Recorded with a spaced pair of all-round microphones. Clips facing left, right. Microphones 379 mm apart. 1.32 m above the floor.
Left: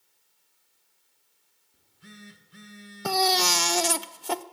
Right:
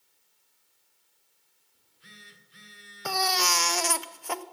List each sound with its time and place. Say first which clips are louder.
1.7 s a phone buzzing: left 9 dB; 60° left (ahead or behind), 1.7 m
3.0 s a baby crying: left 6 dB; 50° left (ahead or behind), 0.5 m